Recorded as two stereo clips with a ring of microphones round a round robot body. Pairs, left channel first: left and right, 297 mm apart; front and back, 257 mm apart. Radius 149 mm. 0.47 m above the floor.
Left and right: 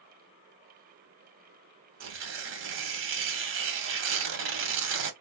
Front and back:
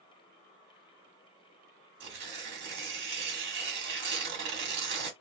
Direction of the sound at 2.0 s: 135° right.